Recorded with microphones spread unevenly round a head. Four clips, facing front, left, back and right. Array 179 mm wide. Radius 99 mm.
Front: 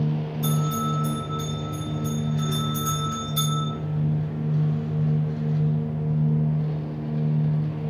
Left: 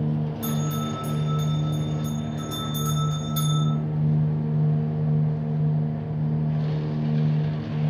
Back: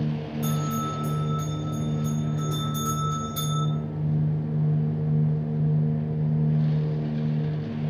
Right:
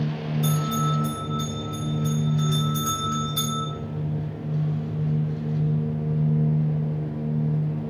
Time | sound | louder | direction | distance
0.4 | a bell | right 6 dB, front 2 dB | 120° left | 1.7 m